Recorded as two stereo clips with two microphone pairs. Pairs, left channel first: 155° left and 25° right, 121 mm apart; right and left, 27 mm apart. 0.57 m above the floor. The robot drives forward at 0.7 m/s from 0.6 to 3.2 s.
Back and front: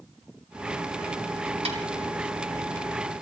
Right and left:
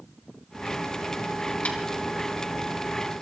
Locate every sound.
1.6 s a snare drum: 60° right, 3.5 m; by 1.8 s 65° right, 3.5 m